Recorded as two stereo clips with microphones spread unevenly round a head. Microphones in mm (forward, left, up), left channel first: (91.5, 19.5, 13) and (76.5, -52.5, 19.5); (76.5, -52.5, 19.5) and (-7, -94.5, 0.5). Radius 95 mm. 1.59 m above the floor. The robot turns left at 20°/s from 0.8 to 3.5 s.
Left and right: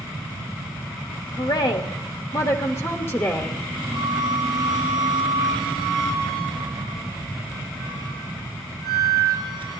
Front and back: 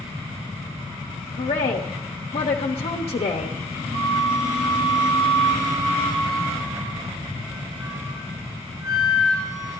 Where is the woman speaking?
55° left, 1.0 m; by 3.6 s 10° left, 1.0 m.